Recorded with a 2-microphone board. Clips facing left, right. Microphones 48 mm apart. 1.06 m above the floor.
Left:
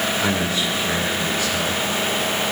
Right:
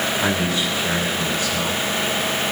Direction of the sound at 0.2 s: 40° right (ahead or behind).